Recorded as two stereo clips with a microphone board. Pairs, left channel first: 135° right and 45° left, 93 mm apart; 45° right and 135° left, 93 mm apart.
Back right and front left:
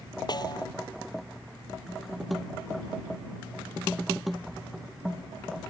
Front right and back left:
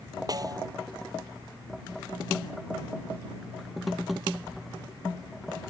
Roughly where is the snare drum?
Behind.